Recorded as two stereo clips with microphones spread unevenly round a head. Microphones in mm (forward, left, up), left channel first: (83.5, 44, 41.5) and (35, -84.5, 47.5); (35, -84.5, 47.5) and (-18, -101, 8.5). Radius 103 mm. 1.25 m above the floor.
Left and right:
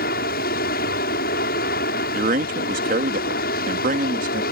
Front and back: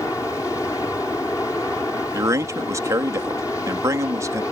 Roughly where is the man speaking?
Behind right.